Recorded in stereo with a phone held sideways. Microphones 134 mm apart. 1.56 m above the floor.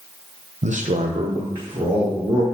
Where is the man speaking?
60° right (ahead or behind), 0.5 m; by 2.4 s 25° right (ahead or behind), 2 m.